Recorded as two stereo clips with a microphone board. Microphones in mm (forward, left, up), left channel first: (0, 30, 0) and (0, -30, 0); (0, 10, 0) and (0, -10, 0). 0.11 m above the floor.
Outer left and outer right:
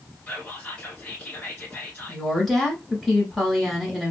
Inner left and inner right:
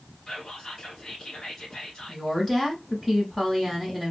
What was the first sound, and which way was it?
Whispering, 25° left (ahead or behind).